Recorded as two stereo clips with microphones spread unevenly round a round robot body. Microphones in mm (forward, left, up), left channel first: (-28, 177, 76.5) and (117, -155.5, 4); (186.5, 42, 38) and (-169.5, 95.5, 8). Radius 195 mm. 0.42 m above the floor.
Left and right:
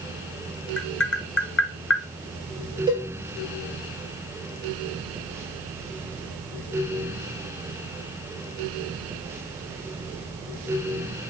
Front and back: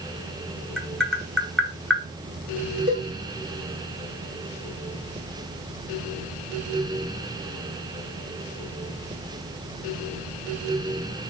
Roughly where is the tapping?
Left.